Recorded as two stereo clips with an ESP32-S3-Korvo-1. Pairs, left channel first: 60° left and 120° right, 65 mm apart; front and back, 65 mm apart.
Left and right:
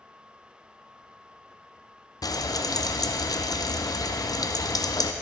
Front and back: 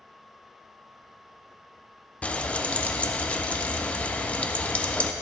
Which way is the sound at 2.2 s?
70° left.